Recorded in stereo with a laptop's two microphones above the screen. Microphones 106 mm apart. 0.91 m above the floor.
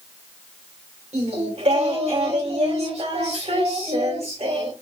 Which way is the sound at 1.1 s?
85° right.